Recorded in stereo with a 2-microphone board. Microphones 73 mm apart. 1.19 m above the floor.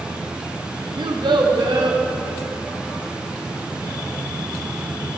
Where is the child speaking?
85° right, 0.9 m; by 2.0 s 80° right, 1.6 m.